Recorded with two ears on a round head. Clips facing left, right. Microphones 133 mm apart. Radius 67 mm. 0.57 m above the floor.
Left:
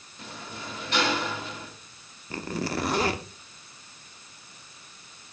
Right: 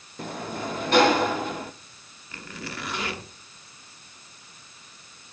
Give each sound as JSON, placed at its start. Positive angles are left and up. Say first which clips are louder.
{"t": 0.2, "sound": "a sliding door", "louder": "right 9 dB", "side_deg": -40, "distance_m": 0.8}
{"t": 2.3, "sound": "a zipper", "louder": "left 8 dB", "side_deg": 30, "distance_m": 1.1}